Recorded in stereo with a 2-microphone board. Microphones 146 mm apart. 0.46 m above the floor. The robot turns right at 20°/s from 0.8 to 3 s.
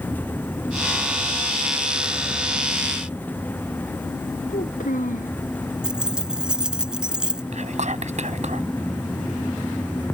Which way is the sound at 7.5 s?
55° right (ahead or behind).